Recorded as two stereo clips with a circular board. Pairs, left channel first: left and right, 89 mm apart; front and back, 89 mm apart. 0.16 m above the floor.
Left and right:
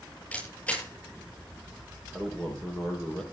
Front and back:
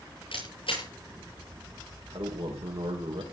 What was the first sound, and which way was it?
A camera shutter, 15° left.